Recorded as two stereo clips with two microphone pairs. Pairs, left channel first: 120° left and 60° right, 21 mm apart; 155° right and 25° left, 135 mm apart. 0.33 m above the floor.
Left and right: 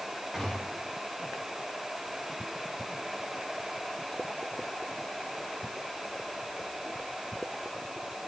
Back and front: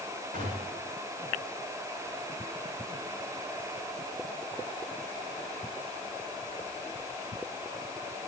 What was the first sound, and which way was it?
A gunshot, 15° left.